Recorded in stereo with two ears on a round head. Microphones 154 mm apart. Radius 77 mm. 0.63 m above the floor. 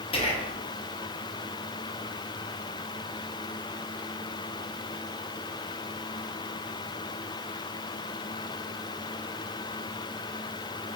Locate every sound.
0.1 s whispering: 35° left (ahead or behind), 0.9 m